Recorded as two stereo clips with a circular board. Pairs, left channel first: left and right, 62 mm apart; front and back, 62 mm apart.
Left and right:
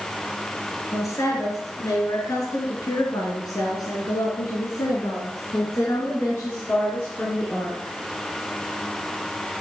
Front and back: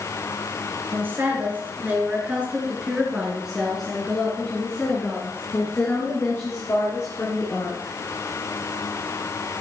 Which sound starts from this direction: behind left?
A woman speaking, at 0.9 s.